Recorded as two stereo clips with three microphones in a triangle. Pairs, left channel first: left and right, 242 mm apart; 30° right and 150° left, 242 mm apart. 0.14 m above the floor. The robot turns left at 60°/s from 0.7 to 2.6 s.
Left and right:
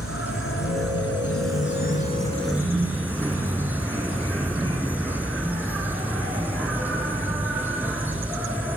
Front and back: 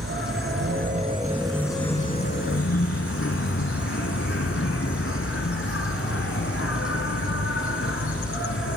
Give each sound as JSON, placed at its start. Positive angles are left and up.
{"t": 0.0, "sound": "an insect", "azimuth_deg": 105, "distance_m": 1.5}